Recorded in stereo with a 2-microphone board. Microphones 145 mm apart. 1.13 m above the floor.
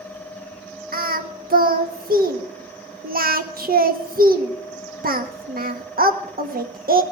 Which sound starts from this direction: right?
Singing, at 0.9 s.